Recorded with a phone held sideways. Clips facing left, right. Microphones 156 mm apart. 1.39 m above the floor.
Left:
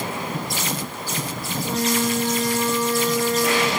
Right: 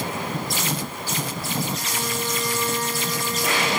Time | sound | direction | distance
1.6 | a flute | 75° left (ahead or behind) | 1.7 m